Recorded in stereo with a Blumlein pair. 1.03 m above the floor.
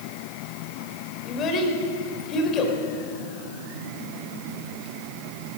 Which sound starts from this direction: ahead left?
A child speaking, at 1.3 s.